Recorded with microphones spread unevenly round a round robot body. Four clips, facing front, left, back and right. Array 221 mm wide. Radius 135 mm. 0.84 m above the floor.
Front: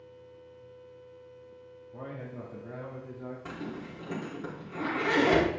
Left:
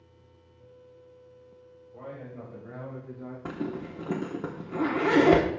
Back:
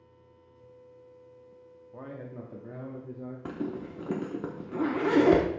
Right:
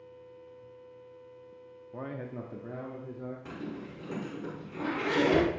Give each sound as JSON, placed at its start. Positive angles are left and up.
{"t": 1.9, "sound": "a man speaking", "azimuth_deg": -95, "distance_m": 1.4}
{"t": 3.5, "sound": "a zipper", "azimuth_deg": 135, "distance_m": 1.5}